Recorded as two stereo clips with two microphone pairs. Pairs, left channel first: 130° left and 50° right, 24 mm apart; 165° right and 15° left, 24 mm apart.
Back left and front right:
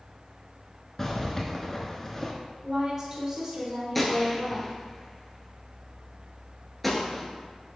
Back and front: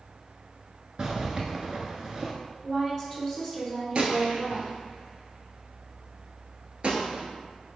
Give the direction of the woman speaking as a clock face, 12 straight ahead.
2 o'clock.